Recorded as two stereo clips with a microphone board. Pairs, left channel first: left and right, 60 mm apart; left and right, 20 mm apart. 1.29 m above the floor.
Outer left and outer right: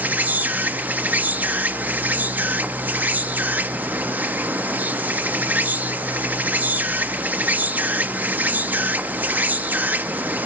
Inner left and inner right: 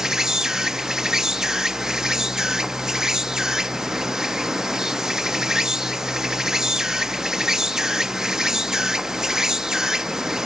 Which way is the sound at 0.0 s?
30° right (ahead or behind).